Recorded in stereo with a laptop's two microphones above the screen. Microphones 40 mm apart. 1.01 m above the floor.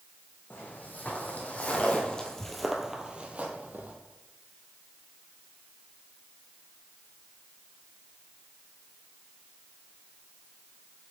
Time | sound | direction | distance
0.5 | footsteps | 50° left (ahead or behind) | 2.5 m